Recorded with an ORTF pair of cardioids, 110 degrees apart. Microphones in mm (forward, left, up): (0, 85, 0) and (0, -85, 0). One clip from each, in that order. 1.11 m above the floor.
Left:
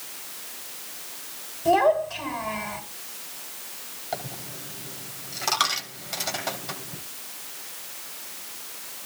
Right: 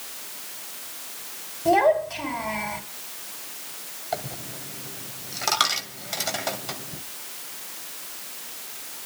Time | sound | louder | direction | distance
1.6 | a child speaking | right 1 dB | 5° right | 5 m
4.1 | a dropped coin | right 2 dB | 10° right | 2.5 m